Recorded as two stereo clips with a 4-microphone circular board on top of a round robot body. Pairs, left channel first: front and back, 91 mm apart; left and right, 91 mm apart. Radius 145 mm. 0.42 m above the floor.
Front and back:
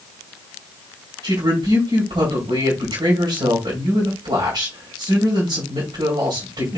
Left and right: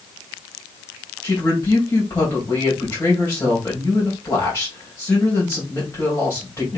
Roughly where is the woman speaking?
Behind left.